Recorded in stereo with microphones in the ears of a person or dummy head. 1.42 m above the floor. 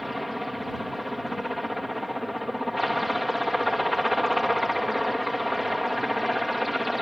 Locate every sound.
0.0 s a helicopter: 5° left (ahead or behind)